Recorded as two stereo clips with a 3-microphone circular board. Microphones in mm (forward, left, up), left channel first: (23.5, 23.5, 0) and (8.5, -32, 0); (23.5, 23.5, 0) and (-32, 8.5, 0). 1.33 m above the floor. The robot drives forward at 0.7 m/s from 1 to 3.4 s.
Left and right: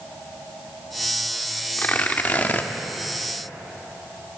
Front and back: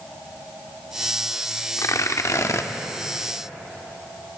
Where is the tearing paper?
15° left, 1.8 m; by 2.7 s 25° left, 1.2 m.